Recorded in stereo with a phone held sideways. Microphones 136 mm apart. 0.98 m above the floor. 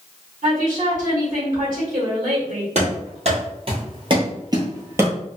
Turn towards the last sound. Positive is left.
turn(degrees=-15)  # may be behind; listen again after turning